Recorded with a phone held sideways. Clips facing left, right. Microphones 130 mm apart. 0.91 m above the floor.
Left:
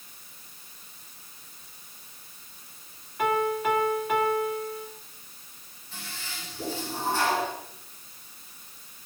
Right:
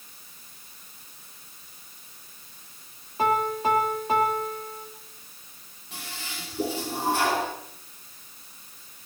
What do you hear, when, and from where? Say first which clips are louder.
3.2 s a piano: right 1 dB; 30° right (ahead or behind), 2 m
5.9 s a toilet flushing: right 2 dB; 65° right (ahead or behind), 5.5 m